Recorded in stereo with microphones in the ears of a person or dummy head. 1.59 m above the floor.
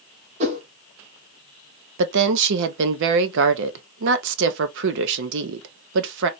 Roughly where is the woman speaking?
Right.